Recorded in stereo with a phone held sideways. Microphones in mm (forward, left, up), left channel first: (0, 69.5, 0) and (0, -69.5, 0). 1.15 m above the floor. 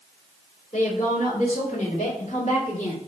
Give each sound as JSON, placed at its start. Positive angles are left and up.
{"t": 0.7, "sound": "a woman speaking", "side_deg": 60, "distance_m": 3.5}